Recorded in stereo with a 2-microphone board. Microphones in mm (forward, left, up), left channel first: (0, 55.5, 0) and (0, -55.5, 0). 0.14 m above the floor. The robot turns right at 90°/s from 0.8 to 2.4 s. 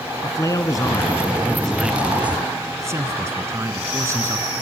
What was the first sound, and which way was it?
A man speaking, 95° left.